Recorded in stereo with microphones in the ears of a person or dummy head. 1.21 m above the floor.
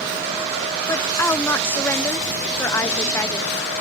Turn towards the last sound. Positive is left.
turn(degrees=15)  # may be behind; listen again after turning